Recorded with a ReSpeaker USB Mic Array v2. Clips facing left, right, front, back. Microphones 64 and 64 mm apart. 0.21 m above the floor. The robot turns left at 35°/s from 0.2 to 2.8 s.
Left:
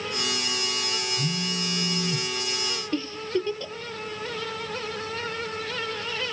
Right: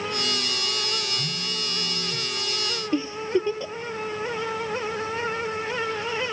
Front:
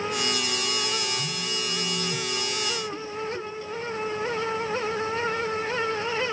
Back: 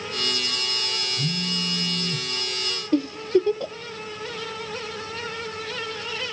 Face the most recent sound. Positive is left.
turn(degrees=-165)